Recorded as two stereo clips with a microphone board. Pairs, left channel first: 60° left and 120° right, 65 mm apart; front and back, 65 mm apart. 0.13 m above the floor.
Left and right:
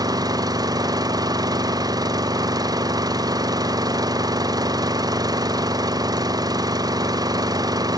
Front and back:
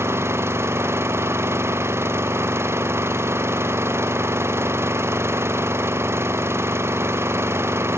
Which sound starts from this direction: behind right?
An engine running, at 0.0 s.